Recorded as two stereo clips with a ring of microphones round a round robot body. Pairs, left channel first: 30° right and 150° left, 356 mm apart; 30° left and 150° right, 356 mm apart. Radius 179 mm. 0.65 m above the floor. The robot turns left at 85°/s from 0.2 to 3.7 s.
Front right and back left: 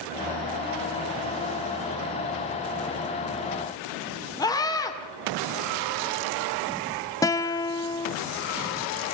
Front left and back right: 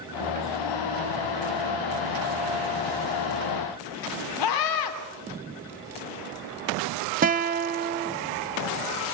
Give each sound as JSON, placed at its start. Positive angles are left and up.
{"t": 4.4, "sound": "a scream", "azimuth_deg": 50, "distance_m": 2.5}
{"t": 7.2, "sound": "a guitar", "azimuth_deg": -105, "distance_m": 0.7}